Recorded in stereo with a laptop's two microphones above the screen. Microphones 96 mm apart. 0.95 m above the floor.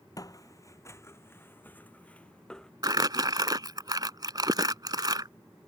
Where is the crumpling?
45° right (ahead or behind).